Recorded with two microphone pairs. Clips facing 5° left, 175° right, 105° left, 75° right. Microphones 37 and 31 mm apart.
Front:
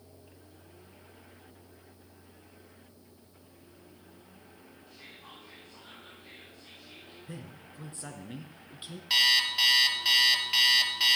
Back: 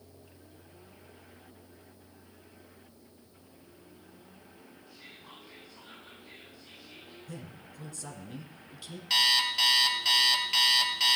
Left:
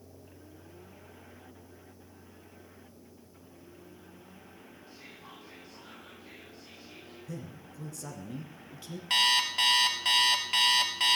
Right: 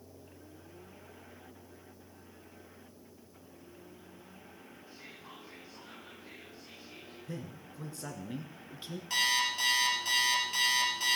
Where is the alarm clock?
90° left, 1.7 m.